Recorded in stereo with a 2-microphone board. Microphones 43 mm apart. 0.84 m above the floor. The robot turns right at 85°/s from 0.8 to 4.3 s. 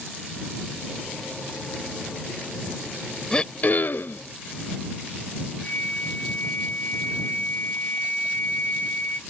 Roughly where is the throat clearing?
Ahead left.